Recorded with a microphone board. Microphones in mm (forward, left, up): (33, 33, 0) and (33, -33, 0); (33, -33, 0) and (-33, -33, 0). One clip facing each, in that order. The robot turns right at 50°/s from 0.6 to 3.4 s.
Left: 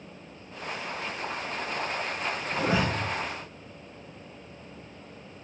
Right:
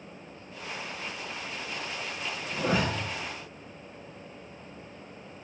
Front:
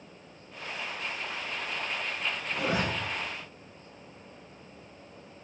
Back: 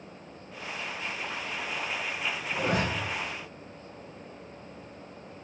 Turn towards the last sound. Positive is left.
turn(degrees=-175)